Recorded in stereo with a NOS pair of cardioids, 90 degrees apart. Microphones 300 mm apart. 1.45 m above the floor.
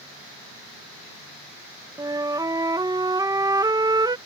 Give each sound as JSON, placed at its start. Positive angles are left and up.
{"t": 2.0, "sound": "a flute", "azimuth_deg": -10}